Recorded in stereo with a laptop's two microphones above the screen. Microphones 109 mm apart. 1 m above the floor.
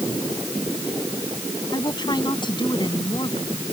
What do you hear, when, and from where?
1.7 s a woman speaking: 40° left (ahead or behind); by 3.5 s 45° left (ahead or behind)